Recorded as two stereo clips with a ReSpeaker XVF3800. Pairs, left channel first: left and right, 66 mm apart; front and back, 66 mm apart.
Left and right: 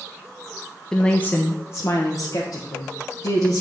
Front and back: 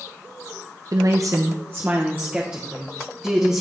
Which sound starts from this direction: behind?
A woman speaking, at 0.9 s.